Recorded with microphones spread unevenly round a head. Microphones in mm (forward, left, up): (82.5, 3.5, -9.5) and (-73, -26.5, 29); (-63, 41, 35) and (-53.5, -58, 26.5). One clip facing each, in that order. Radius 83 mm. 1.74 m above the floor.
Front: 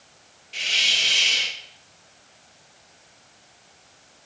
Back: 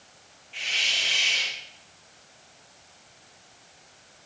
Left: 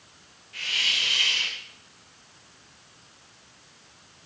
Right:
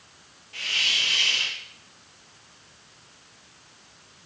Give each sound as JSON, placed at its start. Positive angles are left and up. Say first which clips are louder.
{"t": 0.5, "sound": "a hiss", "louder": "front 3 dB, right 1 dB", "azimuth_deg": -20, "distance_m": 0.8}